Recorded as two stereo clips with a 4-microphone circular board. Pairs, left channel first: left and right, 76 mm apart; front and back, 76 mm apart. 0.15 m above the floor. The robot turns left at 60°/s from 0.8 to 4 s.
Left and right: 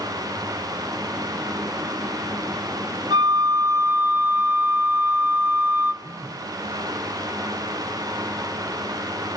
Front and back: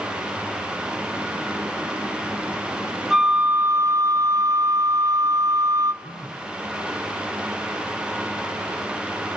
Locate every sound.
3.1 s a flute: 90° right, 0.7 m; by 5.9 s 145° right, 0.7 m
6.0 s a phone buzzing: 30° right, 2 m